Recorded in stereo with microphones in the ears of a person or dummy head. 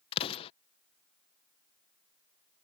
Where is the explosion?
35° left (ahead or behind).